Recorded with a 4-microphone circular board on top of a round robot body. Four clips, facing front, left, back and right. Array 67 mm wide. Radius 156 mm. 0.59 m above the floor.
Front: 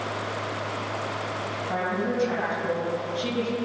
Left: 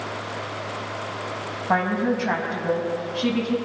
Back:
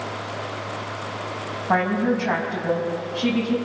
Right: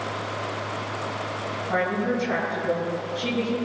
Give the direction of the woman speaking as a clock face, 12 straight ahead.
7 o'clock.